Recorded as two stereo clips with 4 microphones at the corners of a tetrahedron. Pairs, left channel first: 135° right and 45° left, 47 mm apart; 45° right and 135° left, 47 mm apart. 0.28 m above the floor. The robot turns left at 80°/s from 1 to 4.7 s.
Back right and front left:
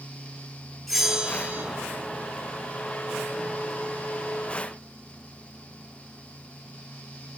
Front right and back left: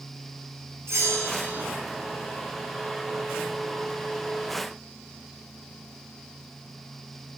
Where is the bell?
135° left, 2.5 m; by 1.7 s 80° left, 2.5 m.